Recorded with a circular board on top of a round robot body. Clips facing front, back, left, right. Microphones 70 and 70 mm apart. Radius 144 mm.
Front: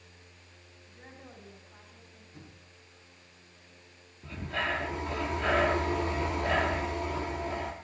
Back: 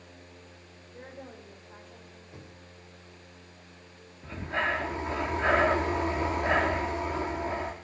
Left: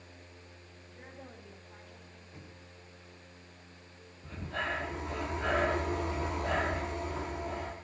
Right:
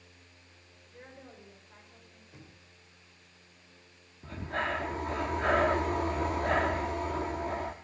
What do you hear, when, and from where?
0.8 s a woman speaking: 150° right, 5.5 m; by 2.2 s 165° right, 6 m
2.3 s knocking: 170° right, 3.5 m
4.2 s breathing: 120° right, 0.6 m